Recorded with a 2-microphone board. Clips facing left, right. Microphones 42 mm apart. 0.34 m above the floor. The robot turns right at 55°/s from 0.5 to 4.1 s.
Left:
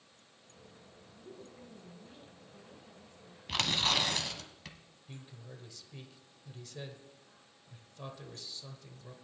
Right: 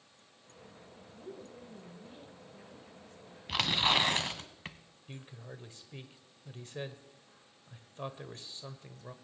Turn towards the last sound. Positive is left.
turn(degrees=-35)  # may be behind; listen again after turning